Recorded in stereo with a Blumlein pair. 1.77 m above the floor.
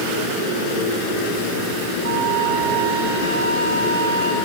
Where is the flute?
65° right, 3.5 m.